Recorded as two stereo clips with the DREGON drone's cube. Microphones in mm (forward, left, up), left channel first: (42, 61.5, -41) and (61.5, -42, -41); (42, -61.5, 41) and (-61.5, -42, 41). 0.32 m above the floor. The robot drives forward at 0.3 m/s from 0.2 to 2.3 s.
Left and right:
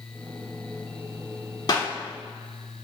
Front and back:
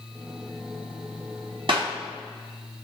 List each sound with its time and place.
1.7 s a clap: 145° left, 2.5 m; by 2.0 s 150° left, 2.5 m